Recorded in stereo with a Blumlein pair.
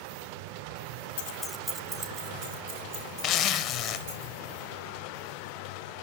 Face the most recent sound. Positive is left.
turn(degrees=30)